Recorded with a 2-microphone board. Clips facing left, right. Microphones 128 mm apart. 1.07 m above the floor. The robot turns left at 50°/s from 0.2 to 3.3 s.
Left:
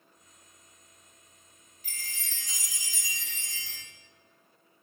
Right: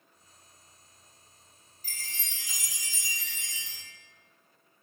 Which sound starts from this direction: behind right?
A chime, at 1.8 s.